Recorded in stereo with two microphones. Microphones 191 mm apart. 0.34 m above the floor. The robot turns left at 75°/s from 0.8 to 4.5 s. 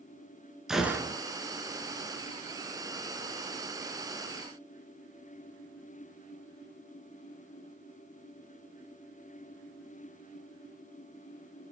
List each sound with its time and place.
0.7 s a gunshot: centre (ahead or behind), 0.9 m; by 1.2 s 30° right (ahead or behind), 0.9 m